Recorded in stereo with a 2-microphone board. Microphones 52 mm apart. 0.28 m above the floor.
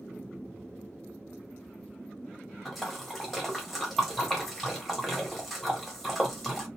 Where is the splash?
Centre (ahead or behind), 1.1 m.